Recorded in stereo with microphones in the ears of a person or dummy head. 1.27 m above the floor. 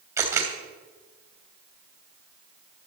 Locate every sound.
0.2 s a camera shutter: 15° right (ahead or behind), 3 m